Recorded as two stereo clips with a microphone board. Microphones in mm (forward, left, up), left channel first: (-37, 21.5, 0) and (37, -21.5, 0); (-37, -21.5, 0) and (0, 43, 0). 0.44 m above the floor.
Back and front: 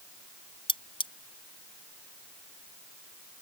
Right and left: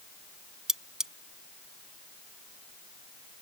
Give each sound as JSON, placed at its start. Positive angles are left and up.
{"t": 0.7, "sound": "cutlery clinking", "azimuth_deg": 140}